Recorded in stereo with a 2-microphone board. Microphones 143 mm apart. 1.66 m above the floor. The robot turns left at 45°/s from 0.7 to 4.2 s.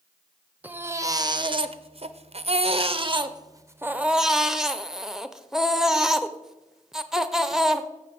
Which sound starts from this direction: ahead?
A baby crying, at 0.6 s.